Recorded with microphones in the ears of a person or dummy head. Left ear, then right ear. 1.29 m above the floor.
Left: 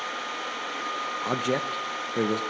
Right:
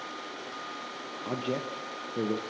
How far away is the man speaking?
About 0.9 m.